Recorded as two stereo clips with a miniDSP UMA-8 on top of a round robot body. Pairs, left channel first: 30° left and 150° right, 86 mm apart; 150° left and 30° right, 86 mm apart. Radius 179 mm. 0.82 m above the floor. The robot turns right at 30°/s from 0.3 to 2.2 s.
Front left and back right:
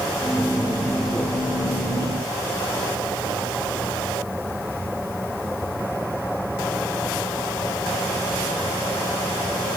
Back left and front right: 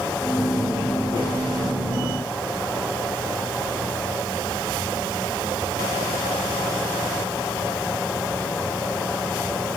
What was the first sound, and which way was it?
Only background noise.